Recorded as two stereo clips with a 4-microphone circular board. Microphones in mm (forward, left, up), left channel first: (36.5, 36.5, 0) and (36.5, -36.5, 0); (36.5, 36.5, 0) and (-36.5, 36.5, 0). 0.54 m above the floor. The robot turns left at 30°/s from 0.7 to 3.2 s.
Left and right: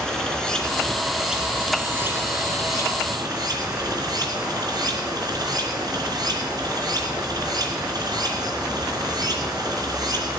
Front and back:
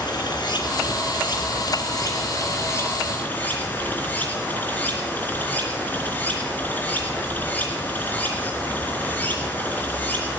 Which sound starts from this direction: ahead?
Running water, at 0.0 s.